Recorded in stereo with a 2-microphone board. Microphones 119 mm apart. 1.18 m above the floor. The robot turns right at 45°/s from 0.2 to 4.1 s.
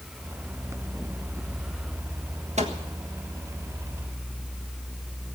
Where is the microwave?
75° right (ahead or behind), 1.5 m.